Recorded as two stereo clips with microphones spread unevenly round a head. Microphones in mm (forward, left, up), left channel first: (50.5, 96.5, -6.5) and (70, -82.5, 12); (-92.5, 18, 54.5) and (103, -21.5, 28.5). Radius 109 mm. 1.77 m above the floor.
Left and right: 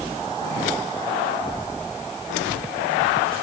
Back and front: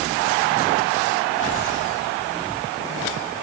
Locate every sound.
Only background noise.